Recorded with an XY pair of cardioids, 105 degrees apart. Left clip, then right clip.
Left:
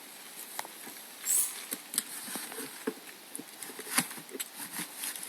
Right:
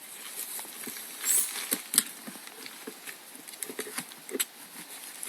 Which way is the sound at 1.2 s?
50° right.